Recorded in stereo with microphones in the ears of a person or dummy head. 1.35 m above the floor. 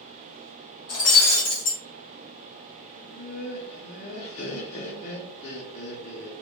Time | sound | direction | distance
0.9 | breaking glass | 60° left (ahead or behind) | 1.2 m
3.0 | laughter | 40° left (ahead or behind) | 0.5 m